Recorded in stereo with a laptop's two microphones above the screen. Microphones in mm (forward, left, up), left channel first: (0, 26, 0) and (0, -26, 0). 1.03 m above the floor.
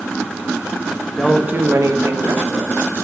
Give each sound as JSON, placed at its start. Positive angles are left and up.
{"t": 1.1, "sound": "a woman speaking", "side_deg": 20, "distance_m": 0.7}